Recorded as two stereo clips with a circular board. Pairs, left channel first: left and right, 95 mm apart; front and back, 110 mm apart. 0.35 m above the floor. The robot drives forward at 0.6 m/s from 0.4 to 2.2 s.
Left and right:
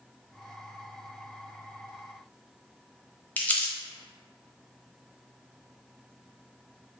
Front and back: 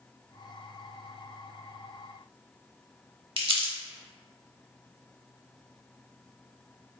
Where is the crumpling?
160° left, 0.7 m.